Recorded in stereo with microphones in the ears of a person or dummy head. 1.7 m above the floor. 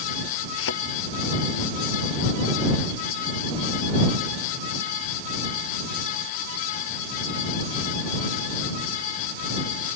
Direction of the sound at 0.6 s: 80° left.